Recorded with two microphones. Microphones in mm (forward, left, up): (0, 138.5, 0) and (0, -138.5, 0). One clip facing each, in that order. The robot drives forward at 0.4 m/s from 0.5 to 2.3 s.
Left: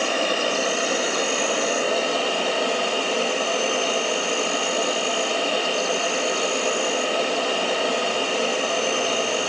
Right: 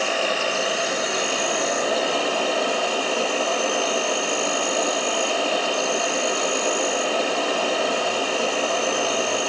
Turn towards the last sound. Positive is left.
turn(degrees=30)  # may be behind; listen again after turning